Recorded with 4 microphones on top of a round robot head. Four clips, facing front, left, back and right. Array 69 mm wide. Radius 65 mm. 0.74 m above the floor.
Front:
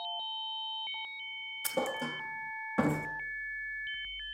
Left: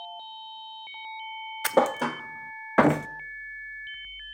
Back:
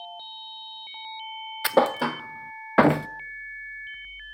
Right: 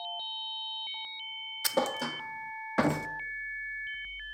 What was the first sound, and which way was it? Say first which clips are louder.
A thud: left 7 dB, back 13 dB; 145° left.